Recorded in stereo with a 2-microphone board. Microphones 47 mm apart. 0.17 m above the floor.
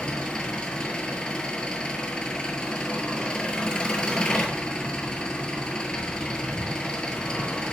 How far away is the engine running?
About 0.7 m.